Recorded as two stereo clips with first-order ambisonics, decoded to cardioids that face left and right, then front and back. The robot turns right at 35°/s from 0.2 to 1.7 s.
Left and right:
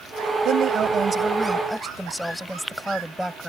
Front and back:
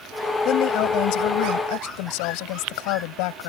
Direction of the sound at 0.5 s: 45° right.